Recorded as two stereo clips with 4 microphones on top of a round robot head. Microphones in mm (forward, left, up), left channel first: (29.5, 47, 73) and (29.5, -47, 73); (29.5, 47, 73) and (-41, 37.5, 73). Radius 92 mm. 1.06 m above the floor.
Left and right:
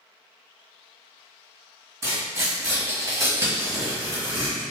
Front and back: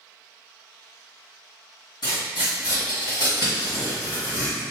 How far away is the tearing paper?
About 1.5 m.